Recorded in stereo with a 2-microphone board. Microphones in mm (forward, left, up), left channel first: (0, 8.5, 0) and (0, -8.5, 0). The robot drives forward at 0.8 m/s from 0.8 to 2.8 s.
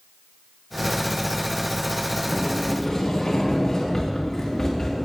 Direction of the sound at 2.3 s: 30° left (ahead or behind).